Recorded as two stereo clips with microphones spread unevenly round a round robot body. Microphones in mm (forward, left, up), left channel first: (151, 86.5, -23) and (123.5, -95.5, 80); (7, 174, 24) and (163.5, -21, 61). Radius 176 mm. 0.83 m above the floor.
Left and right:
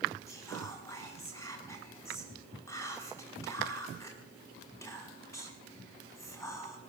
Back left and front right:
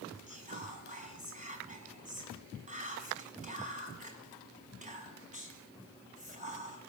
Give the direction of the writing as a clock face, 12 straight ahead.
No writing in this recording.